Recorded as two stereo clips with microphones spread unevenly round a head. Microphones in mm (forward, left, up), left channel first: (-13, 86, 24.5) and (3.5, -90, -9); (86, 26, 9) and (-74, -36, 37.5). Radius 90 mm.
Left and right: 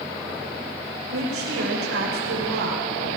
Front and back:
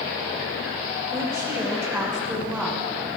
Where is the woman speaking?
85° right, 6 m; by 3.2 s 65° right, 4.5 m.